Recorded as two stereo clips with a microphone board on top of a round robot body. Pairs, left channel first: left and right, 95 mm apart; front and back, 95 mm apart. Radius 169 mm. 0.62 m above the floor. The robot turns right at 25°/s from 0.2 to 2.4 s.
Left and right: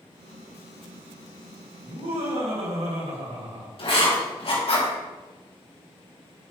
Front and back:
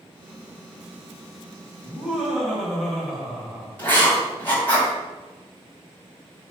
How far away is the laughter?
About 3 m.